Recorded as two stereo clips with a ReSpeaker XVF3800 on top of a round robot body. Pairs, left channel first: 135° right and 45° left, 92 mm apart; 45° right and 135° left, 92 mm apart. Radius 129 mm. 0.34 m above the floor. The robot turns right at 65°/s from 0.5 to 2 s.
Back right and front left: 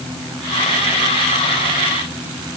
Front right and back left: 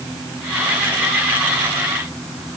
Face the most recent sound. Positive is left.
No sound to turn to.